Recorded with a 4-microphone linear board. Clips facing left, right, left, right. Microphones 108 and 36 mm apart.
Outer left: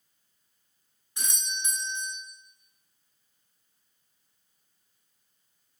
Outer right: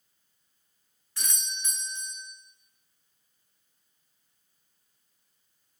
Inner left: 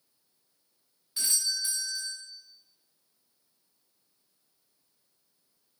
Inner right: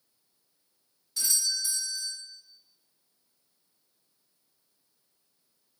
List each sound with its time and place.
1.2 s a doorbell: 20° left (ahead or behind), 0.9 m